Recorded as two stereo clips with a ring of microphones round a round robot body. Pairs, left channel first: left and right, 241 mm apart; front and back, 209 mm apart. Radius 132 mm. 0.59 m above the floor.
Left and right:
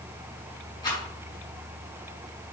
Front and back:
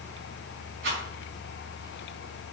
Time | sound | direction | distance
0.8 | a rattle | 165° left | 5.5 m